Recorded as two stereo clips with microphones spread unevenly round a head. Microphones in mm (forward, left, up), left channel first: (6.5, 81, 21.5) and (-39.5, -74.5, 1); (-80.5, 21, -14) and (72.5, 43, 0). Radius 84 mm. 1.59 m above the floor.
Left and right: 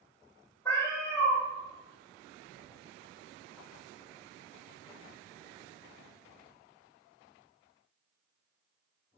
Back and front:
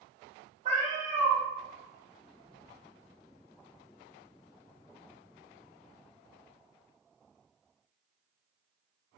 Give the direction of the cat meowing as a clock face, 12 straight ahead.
12 o'clock.